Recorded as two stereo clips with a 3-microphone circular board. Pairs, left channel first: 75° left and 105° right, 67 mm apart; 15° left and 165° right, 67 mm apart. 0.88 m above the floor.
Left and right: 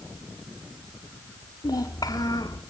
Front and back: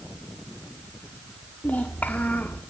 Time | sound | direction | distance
1.6 | a child speaking | 80° left | 2 m